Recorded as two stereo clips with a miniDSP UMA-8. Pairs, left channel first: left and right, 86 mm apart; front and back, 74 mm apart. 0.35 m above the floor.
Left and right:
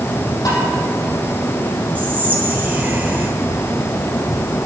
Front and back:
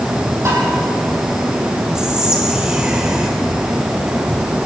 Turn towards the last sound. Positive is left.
turn(degrees=-110)